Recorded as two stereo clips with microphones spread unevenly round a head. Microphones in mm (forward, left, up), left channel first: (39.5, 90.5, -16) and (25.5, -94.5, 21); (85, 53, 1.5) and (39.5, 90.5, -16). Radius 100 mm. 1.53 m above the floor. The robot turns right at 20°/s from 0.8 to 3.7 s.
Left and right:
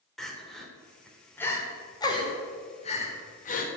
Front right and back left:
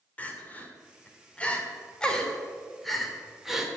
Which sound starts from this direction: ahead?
Crying, at 0.2 s.